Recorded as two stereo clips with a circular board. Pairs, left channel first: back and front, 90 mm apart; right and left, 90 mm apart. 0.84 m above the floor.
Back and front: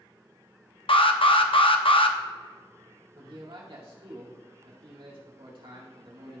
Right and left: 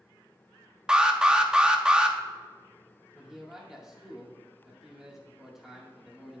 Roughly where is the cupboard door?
No cupboard door in this recording.